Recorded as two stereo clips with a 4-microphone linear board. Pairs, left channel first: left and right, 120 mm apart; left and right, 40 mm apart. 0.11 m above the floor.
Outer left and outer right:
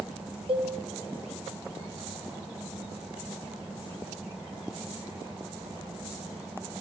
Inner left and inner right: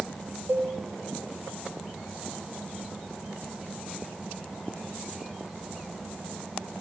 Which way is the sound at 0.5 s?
50° right (ahead or behind).